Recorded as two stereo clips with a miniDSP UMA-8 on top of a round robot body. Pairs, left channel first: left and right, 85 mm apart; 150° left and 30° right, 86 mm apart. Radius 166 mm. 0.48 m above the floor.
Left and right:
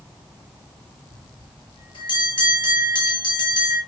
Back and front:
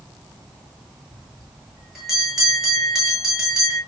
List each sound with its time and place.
1.1 s a bell: 55° left, 8.5 m